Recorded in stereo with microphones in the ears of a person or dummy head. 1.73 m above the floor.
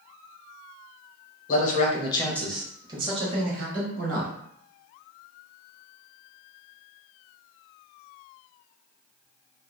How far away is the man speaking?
About 0.8 m.